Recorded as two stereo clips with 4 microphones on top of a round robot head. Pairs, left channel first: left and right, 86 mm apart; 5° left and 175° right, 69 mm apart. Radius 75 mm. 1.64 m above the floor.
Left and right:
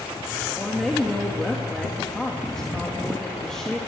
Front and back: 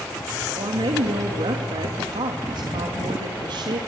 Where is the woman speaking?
175° left, 3 m.